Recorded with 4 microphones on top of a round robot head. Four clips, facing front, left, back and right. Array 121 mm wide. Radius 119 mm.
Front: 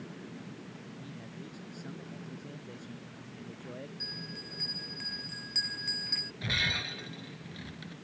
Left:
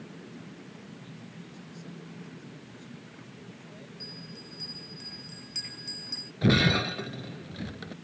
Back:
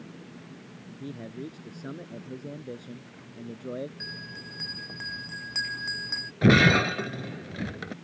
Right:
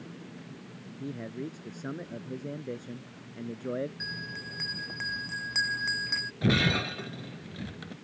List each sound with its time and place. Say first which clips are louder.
1.0 s a man speaking: right 10 dB, back 13 dB; 130° right; by 3.9 s 120° right
4.0 s a bell: right 5 dB, back 3 dB; 130° right
6.4 s breaking glass: left 3 dB, back 17 dB; 170° left